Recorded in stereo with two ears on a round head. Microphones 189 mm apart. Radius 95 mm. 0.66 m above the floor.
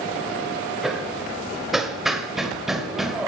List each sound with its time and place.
0.8 s hammering: centre (ahead or behind), 1.4 m